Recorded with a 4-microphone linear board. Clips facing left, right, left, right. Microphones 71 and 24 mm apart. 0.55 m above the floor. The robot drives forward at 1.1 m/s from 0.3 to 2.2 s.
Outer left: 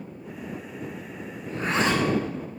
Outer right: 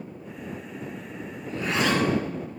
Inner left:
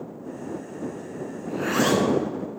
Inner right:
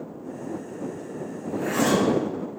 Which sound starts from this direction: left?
A zipper, at 1.5 s.